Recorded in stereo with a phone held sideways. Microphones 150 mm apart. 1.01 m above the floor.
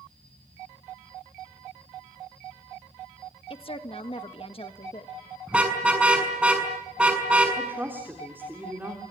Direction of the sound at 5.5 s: 5° right (ahead or behind).